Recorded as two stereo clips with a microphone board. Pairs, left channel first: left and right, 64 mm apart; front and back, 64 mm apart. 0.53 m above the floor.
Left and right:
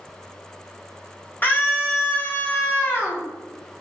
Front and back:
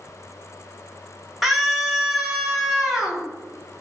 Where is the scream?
100° left, 1.1 m.